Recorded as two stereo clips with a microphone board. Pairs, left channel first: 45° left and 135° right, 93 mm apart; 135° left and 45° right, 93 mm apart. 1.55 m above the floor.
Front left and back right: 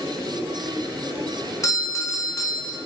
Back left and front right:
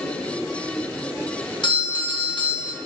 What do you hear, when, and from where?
1.6 s a doorbell: 100° left, 0.6 m